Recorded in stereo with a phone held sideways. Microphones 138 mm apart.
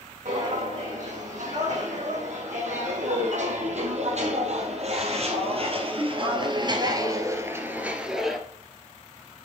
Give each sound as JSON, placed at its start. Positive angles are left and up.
{"t": 0.2, "sound": "footsteps", "side_deg": -65, "distance_m": 4.5}